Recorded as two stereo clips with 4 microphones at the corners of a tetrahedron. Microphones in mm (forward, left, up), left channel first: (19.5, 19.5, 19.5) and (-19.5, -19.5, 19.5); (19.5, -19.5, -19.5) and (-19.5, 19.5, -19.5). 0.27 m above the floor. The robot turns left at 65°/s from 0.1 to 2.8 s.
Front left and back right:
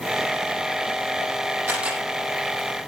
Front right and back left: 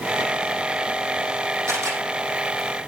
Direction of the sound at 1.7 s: 170° left.